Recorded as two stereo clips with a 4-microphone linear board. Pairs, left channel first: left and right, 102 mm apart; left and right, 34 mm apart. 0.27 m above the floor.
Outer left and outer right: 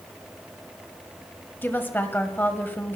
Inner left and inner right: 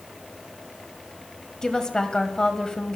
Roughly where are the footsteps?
No footsteps in this recording.